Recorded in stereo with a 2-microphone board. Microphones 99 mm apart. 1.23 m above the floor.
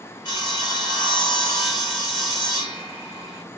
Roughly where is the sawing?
Left.